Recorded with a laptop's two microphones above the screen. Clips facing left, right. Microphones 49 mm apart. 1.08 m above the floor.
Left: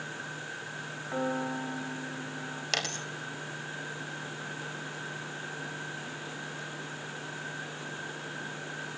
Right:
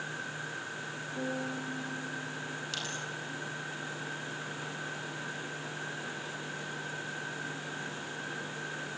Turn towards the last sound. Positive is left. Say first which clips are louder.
# left 8 dB
turn(degrees=65)  # may be behind; listen again after turning